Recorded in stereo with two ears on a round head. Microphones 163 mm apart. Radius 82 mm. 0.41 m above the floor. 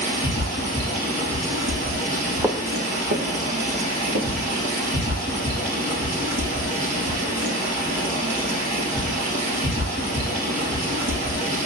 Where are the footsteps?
5° right (ahead or behind), 0.9 m; by 4.7 s 75° right (ahead or behind), 3 m.